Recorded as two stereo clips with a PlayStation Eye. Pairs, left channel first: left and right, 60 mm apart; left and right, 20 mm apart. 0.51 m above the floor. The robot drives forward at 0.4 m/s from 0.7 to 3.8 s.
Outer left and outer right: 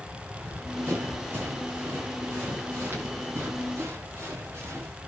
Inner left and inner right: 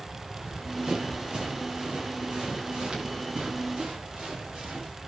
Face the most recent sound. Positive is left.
turn(degrees=-45)  # may be behind; listen again after turning